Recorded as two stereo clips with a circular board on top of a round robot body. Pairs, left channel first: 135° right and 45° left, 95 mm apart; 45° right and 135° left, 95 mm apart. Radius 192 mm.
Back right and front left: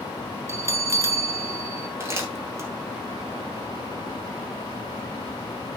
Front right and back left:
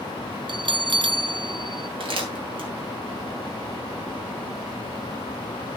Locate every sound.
0.5 s a bell: 105° left, 0.9 m
2.0 s crumpling: 110° left, 3 m